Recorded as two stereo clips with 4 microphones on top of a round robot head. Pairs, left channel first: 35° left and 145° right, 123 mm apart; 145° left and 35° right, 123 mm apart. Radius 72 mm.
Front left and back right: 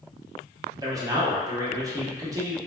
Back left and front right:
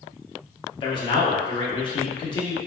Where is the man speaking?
170° left, 0.9 m.